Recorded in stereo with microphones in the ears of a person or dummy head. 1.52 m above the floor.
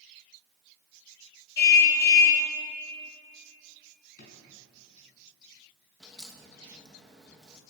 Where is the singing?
I don't hear singing.